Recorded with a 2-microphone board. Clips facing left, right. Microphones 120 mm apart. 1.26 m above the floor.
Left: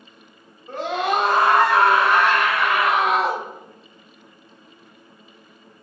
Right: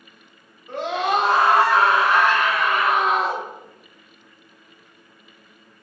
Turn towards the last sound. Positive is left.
turn(degrees=75)  # may be behind; listen again after turning